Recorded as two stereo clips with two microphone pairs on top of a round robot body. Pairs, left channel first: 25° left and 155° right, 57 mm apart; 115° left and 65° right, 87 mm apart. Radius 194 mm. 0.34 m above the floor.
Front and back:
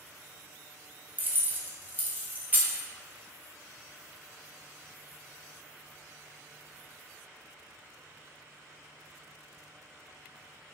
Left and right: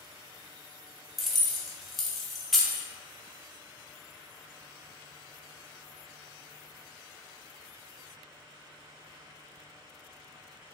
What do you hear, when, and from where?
1.2 s keys jangling: 150° right, 0.8 m